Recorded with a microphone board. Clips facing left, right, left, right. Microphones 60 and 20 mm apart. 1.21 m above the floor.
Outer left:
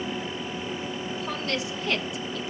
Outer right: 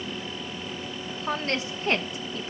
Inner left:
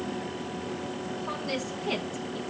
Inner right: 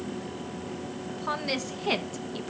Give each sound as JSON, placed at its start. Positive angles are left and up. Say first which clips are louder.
{"t": 1.1, "sound": "a woman speaking", "louder": "outer right 3 dB, inner right 4 dB", "side_deg": -40, "distance_m": 1.6}